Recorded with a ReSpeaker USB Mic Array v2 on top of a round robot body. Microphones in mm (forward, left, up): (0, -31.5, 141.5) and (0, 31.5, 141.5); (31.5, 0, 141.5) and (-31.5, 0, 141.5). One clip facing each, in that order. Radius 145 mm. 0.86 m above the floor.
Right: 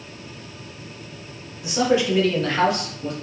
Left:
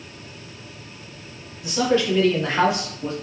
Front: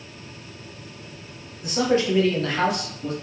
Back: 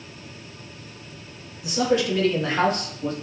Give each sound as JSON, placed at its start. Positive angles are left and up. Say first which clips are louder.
{"t": 1.6, "sound": "a man speaking", "louder": "right 1 dB, front 1 dB", "azimuth_deg": -25, "distance_m": 1.1}